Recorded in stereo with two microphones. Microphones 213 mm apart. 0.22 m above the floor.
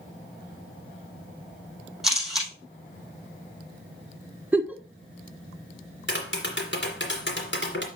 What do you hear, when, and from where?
2.0 s a camera shutter: centre (ahead or behind), 3 m
4.5 s a giggle: 10° right (ahead or behind), 0.8 m
6.1 s tapping: 60° left (ahead or behind), 2.5 m